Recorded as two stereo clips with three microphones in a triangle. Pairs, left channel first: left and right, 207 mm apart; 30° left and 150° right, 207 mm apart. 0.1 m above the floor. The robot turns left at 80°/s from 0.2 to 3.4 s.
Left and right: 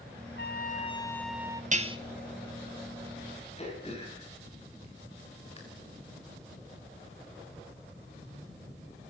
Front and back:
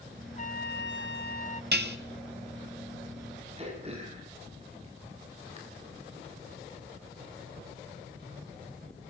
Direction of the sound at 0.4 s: 75° left.